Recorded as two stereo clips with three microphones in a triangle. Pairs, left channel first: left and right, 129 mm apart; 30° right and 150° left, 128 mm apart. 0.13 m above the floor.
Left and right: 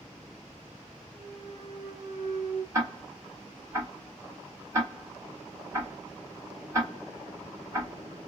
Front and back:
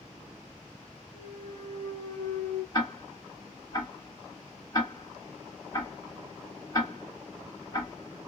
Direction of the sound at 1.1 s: 20° right.